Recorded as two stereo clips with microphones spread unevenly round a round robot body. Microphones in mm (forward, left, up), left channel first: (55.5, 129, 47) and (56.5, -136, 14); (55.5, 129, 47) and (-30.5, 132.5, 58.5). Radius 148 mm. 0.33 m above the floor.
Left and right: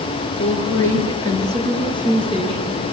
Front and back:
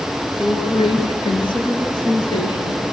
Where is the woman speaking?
10° left, 8 m; by 2.8 s 25° left, 7 m.